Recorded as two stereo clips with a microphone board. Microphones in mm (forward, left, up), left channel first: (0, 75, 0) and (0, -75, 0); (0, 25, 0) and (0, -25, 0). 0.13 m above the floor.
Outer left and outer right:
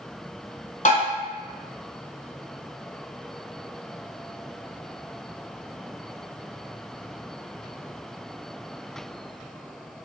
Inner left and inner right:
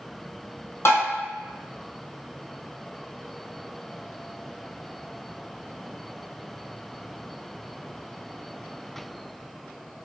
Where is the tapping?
55° left (ahead or behind), 1.1 m.